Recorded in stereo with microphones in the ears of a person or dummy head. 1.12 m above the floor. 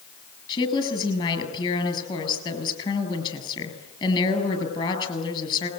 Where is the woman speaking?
30° left (ahead or behind), 8 m.